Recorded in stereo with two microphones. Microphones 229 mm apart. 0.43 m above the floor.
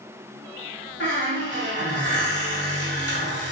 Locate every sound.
1.0 s a squeak: 70° left (ahead or behind), 1.7 m